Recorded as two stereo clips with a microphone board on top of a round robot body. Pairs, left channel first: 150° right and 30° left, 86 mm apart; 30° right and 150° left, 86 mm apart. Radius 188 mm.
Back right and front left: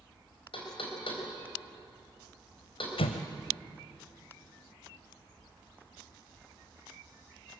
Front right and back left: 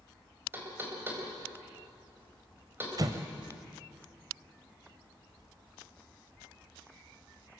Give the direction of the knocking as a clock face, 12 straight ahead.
5 o'clock.